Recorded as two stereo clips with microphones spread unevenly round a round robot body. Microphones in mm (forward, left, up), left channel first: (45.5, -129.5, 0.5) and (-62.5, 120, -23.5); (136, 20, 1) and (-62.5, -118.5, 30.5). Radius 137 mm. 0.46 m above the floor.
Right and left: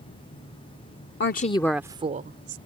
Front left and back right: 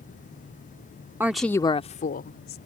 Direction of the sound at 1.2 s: 60° right.